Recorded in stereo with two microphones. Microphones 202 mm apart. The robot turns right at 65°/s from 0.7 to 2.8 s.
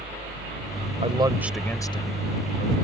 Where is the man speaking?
35° right; by 2.7 s 75° left.